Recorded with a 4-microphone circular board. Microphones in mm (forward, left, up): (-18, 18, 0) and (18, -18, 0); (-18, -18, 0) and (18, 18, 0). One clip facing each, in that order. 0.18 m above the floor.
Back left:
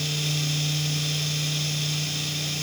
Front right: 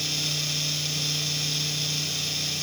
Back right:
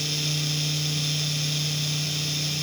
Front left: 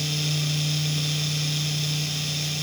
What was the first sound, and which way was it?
Only background noise.